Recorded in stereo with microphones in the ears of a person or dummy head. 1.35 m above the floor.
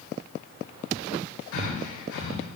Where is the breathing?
75° left (ahead or behind), 1.5 m.